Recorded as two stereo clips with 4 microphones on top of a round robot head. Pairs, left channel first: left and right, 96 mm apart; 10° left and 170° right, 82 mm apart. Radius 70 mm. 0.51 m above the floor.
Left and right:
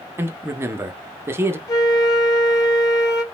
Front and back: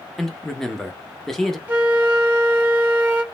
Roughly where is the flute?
Behind left.